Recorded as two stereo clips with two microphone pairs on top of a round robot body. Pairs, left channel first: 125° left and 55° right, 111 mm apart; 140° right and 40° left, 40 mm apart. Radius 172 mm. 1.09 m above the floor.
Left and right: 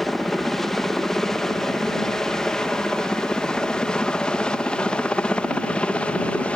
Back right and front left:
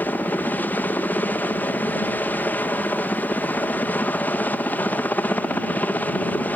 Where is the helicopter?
150° right; by 6.5 s 160° right.